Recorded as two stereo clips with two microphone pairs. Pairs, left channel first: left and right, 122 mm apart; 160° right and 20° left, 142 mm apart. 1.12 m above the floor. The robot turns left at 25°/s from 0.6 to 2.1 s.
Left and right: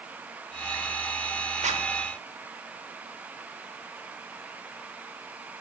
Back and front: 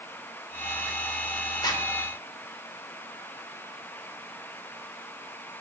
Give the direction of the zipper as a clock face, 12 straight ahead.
3 o'clock.